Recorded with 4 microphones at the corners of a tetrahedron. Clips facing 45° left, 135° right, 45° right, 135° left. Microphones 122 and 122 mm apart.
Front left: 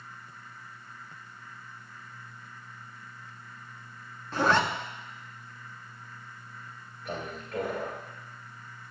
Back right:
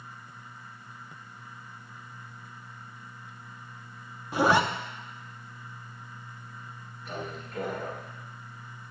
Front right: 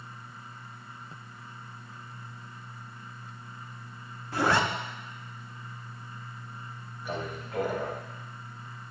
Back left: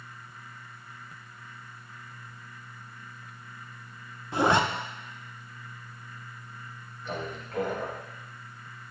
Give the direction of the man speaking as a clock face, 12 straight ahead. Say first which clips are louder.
Front left 1 dB, even; 11 o'clock.